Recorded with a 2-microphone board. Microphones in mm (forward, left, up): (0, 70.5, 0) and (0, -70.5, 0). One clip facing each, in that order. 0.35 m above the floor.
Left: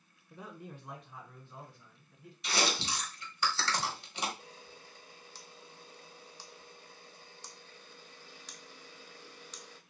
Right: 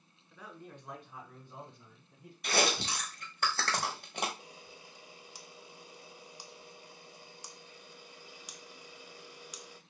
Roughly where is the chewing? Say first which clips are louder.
Right 3 dB; right.